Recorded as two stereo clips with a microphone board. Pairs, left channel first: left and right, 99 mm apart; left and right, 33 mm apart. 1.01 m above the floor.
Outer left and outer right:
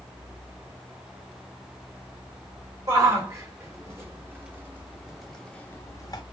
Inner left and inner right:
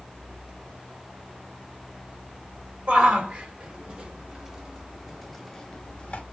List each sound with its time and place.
2.9 s a shout: 35° right (ahead or behind), 4 m; by 6.2 s 45° left (ahead or behind), 1.3 m